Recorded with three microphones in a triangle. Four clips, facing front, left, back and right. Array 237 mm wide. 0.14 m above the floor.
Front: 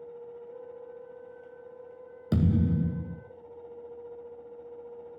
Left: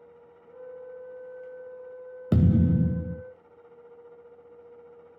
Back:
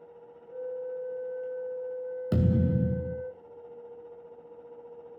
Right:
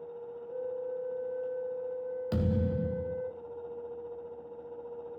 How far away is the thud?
About 2 m.